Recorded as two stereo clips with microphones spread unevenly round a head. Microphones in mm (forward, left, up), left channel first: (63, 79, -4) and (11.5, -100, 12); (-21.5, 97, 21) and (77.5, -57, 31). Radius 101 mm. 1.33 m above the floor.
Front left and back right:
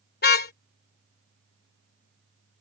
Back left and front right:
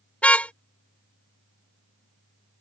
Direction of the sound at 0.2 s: 40° left.